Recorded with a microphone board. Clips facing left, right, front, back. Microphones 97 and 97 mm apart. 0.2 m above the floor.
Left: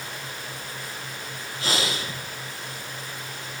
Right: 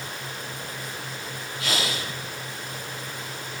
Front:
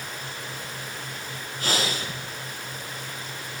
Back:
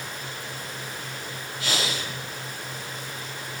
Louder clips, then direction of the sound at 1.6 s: Left 1 dB, front 2 dB; 40° left.